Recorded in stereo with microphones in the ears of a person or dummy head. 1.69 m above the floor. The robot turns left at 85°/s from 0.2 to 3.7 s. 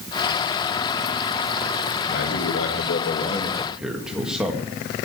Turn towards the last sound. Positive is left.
turn(degrees=-5)